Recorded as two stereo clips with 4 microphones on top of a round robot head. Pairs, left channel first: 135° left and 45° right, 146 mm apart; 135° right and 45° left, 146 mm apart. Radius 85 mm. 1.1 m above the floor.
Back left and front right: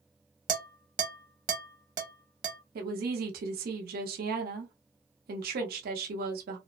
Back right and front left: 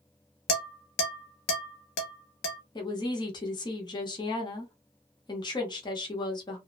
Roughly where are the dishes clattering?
Right.